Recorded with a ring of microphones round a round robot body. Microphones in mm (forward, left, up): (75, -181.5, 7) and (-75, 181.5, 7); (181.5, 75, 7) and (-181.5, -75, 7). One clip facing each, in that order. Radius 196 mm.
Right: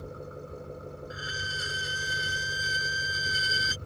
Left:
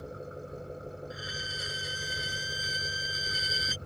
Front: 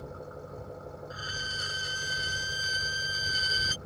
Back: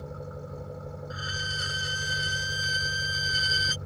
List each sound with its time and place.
0.0 s an engine running: 155° right
1.1 s a violin: 135° right